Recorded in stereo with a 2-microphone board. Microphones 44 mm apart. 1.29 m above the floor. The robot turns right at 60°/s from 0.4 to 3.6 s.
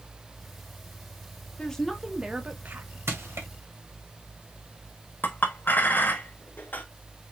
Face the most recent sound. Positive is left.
turn(degrees=45)  # may be behind; listen again after turning